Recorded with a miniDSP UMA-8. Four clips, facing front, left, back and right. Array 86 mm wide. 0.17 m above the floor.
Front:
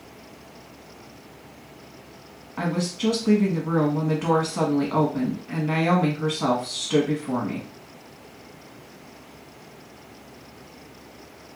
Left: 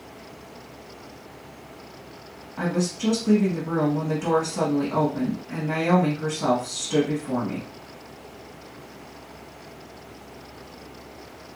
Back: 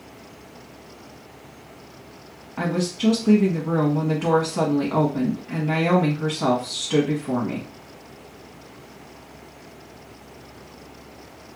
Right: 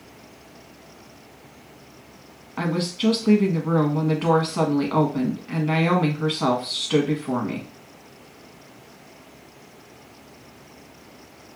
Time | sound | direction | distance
2.6 | a woman speaking | 85° right | 1.1 m